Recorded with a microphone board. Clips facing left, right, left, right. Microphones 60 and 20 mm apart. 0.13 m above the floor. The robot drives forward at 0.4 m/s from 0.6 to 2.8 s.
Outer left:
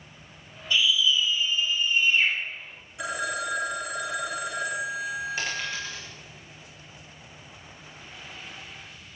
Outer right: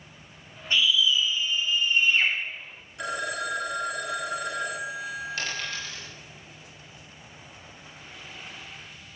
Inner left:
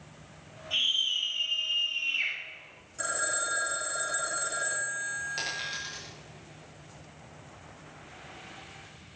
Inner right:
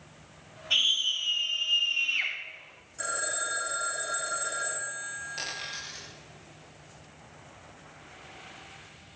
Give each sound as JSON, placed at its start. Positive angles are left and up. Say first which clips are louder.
{"t": 0.7, "sound": "a scream", "louder": "even, inner right 2 dB", "side_deg": -40, "distance_m": 5.0}
{"t": 3.0, "sound": "a phone ringing", "louder": "even, inner left 1 dB", "side_deg": 5, "distance_m": 4.5}
{"t": 5.4, "sound": "a dropped coin", "louder": "outer left 2 dB, inner left 2 dB", "side_deg": 20, "distance_m": 9.0}